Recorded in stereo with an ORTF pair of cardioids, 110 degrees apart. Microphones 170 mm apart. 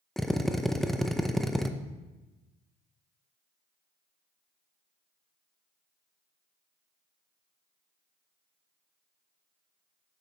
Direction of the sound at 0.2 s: Straight ahead.